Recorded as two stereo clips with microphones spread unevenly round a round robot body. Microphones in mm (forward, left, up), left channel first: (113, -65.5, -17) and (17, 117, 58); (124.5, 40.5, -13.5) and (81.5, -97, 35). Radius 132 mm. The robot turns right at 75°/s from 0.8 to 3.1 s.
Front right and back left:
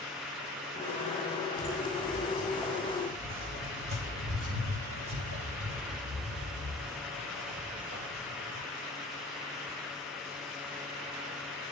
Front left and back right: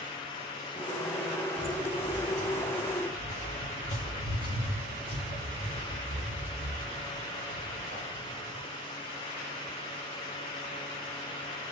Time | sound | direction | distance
1.6 | footsteps | 70° right | 2.5 m